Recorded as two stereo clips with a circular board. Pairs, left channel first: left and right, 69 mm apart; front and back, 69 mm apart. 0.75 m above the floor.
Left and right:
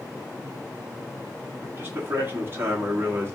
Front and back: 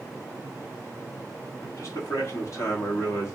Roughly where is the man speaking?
Ahead right.